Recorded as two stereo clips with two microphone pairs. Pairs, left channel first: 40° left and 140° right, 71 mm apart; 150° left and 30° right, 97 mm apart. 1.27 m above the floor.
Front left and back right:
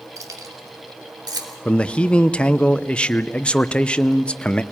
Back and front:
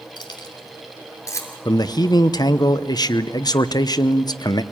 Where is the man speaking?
110° left, 0.8 m.